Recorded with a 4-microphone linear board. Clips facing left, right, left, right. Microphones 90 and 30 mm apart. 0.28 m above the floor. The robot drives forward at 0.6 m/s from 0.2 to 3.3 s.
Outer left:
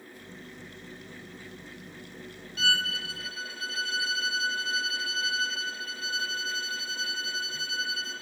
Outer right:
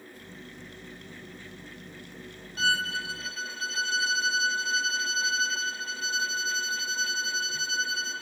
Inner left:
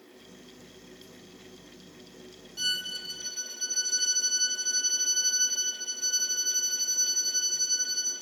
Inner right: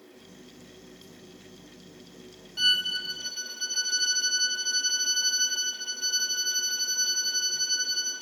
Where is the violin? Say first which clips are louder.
Outer right 2 dB, inner right 7 dB; 35° right (ahead or behind), 0.9 m; by 8.2 s 25° right (ahead or behind), 1.2 m.